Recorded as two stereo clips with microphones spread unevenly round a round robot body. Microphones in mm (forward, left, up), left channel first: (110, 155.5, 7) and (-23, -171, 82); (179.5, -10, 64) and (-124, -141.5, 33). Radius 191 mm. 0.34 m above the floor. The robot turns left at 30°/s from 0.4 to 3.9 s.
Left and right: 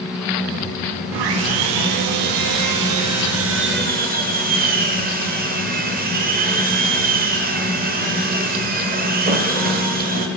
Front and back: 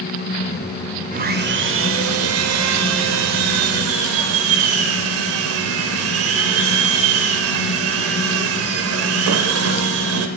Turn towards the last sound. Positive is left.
turn(degrees=175)